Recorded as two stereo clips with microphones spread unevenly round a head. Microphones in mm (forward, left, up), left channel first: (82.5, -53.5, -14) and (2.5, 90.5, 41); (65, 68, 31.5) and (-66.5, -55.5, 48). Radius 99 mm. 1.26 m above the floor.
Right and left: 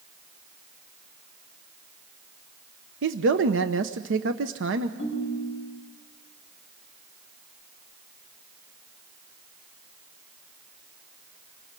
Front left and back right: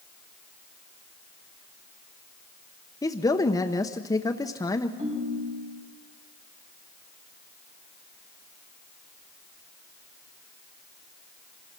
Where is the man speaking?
110° left, 0.9 m.